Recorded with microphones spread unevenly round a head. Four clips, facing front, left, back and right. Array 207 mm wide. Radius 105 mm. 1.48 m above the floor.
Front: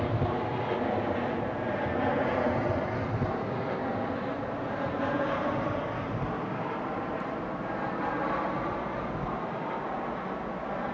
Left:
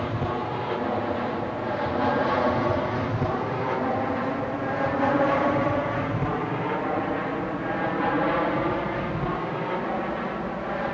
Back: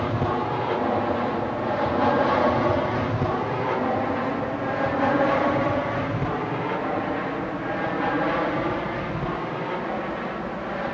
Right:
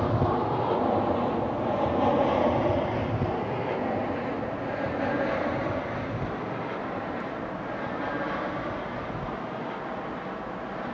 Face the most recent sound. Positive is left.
turn(degrees=120)